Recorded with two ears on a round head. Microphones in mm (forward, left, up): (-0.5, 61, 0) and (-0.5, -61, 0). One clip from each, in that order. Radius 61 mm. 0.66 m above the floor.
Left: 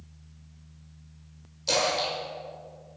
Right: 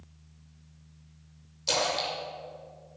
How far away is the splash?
About 2 m.